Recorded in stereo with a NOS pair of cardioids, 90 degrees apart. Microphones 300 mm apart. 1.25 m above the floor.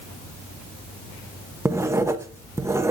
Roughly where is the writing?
Ahead.